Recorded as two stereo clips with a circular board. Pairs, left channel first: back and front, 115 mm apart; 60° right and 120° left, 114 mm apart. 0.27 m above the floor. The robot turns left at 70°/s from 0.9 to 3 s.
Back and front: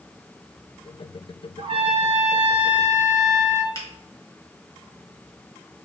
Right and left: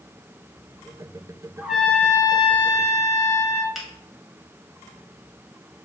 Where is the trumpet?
45° left, 0.5 m; by 3.6 s 55° right, 0.5 m.